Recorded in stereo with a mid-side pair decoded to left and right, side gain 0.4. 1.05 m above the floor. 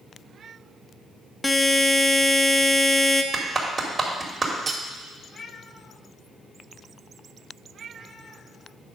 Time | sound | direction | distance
1.4 | a buzzer | 15° left | 0.8 m
3.3 | a clap | 40° right | 2.5 m
4.7 | cutlery clinking | 45° right | 1.2 m